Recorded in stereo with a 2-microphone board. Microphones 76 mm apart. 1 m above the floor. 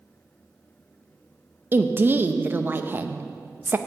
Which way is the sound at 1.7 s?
30° right (ahead or behind).